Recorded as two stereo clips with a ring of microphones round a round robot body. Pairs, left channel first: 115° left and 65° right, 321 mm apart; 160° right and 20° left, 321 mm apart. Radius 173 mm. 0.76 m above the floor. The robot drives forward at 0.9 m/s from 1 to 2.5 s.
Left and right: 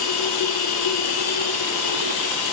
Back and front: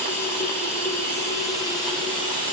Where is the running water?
120° left, 6 m; by 2.5 s 130° left, 7 m.